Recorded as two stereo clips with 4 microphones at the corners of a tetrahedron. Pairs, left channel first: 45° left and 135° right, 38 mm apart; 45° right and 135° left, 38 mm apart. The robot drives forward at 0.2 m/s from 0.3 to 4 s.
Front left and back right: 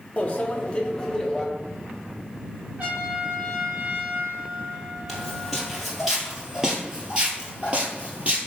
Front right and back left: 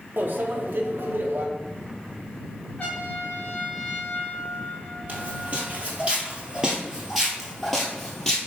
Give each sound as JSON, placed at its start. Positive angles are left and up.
{"t": 0.2, "sound": "a microwave", "azimuth_deg": 100, "distance_m": 0.7}
{"t": 2.8, "sound": "a trumpet", "azimuth_deg": -100, "distance_m": 2.0}
{"t": 5.1, "sound": "footsteps", "azimuth_deg": 125, "distance_m": 1.7}